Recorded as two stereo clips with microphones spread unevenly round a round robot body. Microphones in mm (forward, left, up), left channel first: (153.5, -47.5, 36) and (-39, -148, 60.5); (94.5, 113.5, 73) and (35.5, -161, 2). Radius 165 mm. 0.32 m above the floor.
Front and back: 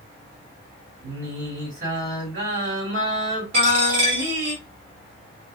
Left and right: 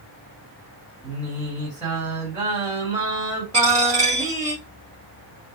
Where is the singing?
Straight behind, 1.7 m.